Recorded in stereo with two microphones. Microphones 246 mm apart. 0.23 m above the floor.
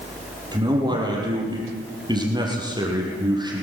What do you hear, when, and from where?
0.5 s a man speaking: 15° right (ahead or behind), 6 m